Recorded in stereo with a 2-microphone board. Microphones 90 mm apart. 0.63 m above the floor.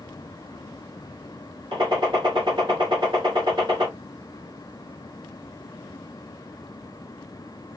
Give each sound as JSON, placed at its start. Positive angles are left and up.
{"t": 1.7, "sound": "a gunshot", "side_deg": -65, "distance_m": 2.5}